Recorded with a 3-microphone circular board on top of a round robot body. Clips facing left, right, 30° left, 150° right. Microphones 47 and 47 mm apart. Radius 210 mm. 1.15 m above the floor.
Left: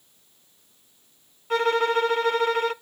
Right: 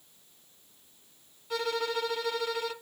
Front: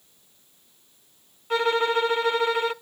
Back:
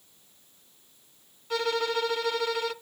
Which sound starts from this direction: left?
A violin, at 1.5 s.